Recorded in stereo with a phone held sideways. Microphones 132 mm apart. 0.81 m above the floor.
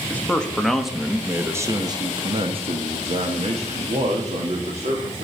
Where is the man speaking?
10° left (ahead or behind), 1.3 m; by 5.2 s 50° right (ahead or behind), 2 m.